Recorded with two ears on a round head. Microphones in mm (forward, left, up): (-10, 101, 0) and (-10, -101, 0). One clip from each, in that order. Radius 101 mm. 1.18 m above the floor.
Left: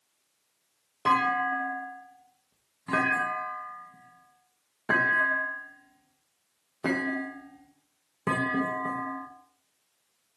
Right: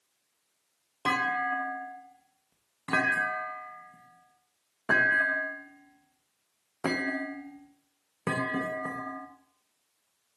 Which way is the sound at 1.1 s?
20° right (ahead or behind).